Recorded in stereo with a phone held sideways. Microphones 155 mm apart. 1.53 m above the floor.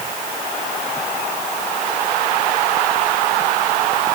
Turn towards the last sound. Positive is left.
No sound to turn to.